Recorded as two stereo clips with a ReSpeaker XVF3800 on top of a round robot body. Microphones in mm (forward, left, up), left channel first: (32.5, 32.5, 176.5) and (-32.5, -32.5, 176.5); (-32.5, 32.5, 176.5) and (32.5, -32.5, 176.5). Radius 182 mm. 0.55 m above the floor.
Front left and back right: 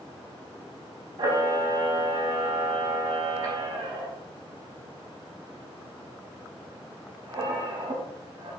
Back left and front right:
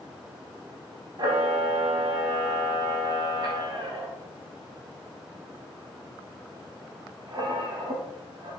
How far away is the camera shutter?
About 0.6 m.